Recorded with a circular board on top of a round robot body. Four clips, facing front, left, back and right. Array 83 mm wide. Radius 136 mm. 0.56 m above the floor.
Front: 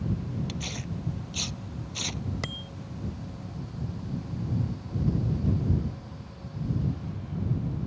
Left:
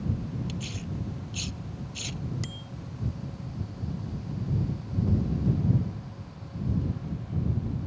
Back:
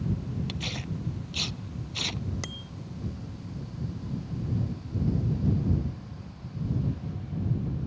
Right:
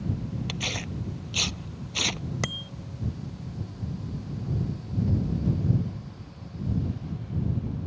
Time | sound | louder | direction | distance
0.5 | tearing paper | right 2 dB, even | 100° right | ?
2.4 | a bicycle bell | right 6 dB, front 3 dB | 80° right | ?